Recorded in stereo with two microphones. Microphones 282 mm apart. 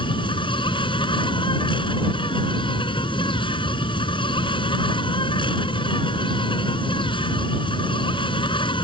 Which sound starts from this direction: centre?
An insect, at 0.0 s.